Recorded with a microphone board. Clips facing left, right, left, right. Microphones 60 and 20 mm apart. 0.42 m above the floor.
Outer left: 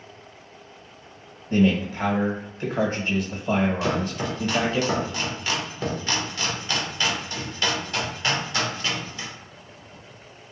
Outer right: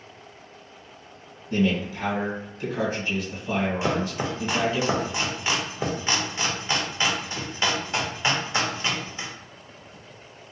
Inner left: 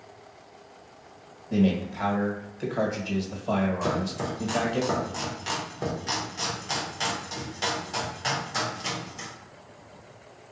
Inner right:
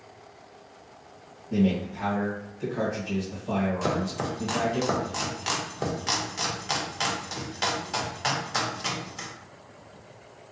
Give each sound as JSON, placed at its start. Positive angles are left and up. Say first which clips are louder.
{"t": 1.5, "sound": "a man speaking", "louder": "outer left 3 dB, inner left 1 dB", "side_deg": 40, "distance_m": 1.3}
{"t": 3.8, "sound": "chopping", "louder": "even, even", "side_deg": -20, "distance_m": 0.8}